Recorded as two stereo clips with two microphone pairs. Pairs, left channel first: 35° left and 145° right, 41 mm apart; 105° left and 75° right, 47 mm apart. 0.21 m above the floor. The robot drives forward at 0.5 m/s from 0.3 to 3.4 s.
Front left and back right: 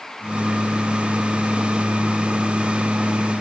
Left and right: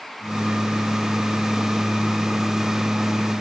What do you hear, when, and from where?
Only background noise.